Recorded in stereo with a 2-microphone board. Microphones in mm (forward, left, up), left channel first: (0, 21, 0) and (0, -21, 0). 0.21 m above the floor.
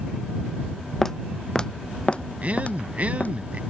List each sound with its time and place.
1.0 s footsteps: 10° left (ahead or behind); by 3.3 s 40° left (ahead or behind)
2.4 s a man speaking: 35° right (ahead or behind)